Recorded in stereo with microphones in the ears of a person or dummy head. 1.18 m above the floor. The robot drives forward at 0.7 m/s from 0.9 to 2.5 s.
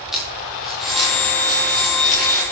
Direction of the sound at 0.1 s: Centre (ahead or behind).